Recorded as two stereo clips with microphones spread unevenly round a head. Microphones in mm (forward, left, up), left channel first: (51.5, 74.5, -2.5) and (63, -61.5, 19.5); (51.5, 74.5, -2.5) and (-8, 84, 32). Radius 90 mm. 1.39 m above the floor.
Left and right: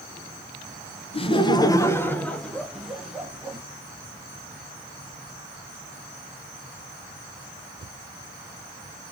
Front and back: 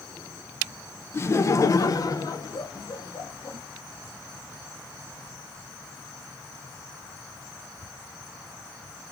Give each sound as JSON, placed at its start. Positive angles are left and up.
{"t": 1.1, "sound": "laughter", "azimuth_deg": 45, "distance_m": 0.9}